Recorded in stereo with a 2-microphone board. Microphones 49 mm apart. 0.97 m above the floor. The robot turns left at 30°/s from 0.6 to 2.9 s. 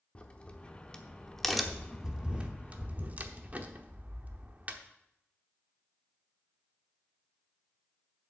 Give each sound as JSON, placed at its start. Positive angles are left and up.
{"t": 0.1, "sound": "a crack", "side_deg": 25, "distance_m": 0.8}